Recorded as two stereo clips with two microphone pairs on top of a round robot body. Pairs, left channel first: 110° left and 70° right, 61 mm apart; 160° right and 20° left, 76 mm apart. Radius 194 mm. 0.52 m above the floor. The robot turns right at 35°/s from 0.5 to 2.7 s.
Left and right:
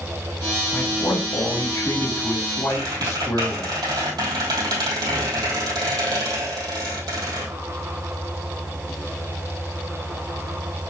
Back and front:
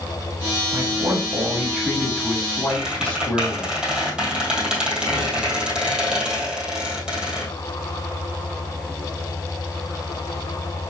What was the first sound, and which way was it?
A man speaking, 65° left.